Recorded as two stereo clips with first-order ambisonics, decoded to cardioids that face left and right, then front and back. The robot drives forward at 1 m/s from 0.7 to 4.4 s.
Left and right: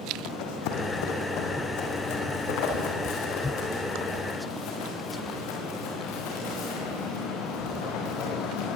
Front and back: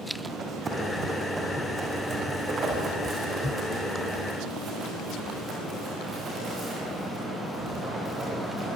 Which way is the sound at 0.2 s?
105° left.